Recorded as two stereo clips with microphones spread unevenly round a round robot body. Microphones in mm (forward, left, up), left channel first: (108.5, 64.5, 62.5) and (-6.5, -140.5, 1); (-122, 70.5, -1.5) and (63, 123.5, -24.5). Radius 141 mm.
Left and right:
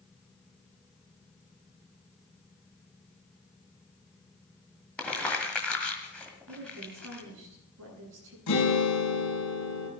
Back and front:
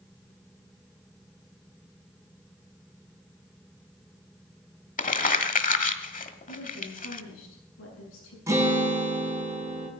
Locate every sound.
5.0 s crumpling: 150° left, 1.7 m
6.5 s a woman speaking: 155° right, 8 m
8.5 s a guitar: 90° left, 5.5 m